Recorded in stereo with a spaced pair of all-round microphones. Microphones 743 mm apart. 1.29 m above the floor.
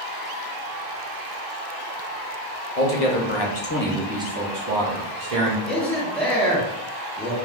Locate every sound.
2.8 s a man speaking: 55° left (ahead or behind), 0.8 m; by 5.6 s 60° right (ahead or behind), 0.9 m
5.7 s a man speaking: centre (ahead or behind), 0.7 m